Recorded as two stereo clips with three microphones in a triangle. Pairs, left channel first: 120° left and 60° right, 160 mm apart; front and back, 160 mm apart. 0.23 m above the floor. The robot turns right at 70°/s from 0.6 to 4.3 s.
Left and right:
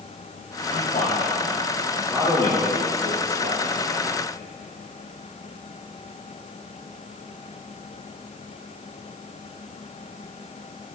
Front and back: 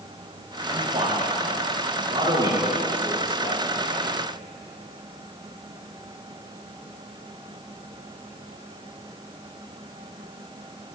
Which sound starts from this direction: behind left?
A man speaking, at 0.7 s.